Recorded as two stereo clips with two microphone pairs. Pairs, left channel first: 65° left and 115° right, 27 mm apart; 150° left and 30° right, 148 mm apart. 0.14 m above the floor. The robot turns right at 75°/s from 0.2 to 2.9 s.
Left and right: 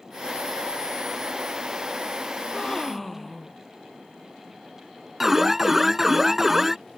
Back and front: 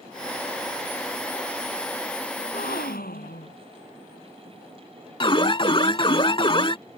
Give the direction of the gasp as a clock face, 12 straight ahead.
8 o'clock.